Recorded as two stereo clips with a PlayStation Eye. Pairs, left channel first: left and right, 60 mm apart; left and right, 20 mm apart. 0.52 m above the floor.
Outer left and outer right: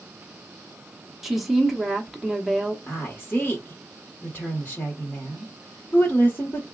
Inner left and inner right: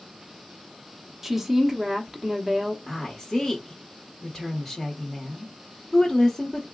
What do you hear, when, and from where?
1.2 s a woman speaking: 5° right (ahead or behind), 0.8 m
2.9 s a woman speaking: 25° left (ahead or behind), 1.0 m